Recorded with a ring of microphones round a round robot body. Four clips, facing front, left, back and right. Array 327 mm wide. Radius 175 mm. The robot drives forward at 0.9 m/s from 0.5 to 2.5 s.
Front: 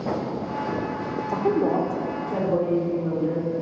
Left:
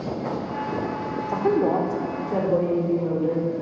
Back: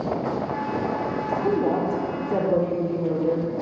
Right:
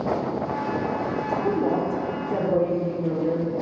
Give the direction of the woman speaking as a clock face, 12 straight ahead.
10 o'clock.